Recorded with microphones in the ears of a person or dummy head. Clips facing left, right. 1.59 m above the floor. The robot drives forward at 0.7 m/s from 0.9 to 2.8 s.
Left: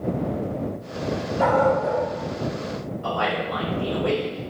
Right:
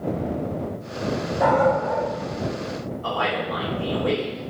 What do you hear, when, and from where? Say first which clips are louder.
1.4 s a dog barking: even; 60° left (ahead or behind), 2.0 m
3.0 s a man speaking: left 1 dB; 30° left (ahead or behind), 1.5 m